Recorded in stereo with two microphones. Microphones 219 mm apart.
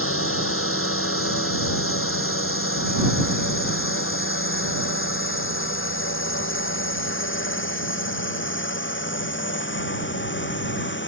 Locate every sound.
0.0 s a drone: 75° left (ahead or behind); by 11.1 s 60° left (ahead or behind)